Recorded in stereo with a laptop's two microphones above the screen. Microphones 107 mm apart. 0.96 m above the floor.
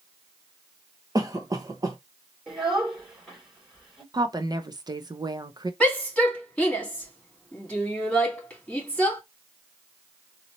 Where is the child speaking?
5° right (ahead or behind), 2.5 m.